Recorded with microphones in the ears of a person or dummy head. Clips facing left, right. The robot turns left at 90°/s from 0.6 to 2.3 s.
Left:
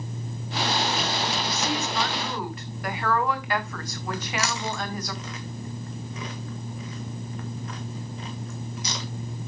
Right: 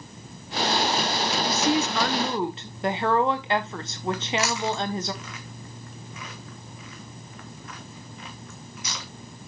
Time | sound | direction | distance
1.4 | a woman speaking | 75° right | 0.8 m
4.1 | chewing | 30° left (ahead or behind) | 1.4 m